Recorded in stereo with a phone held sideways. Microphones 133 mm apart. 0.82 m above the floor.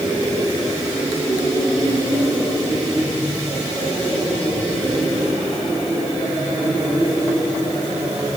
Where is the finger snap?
I don't hear a finger snap.